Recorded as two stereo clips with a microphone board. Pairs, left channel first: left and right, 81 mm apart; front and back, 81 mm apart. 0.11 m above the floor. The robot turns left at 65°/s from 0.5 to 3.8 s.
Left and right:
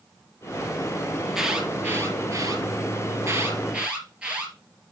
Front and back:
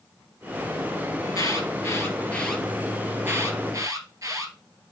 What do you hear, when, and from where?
1.2 s an alarm: 5° left, 2.5 m; by 4.5 s 165° right, 2.5 m